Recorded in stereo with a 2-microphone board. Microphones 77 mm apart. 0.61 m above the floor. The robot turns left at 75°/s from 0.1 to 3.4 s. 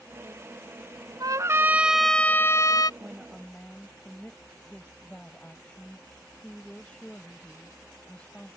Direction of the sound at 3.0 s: 15° right (ahead or behind).